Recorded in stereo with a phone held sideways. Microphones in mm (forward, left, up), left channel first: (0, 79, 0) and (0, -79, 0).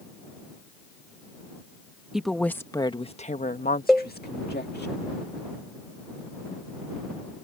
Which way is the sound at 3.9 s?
Centre (ahead or behind).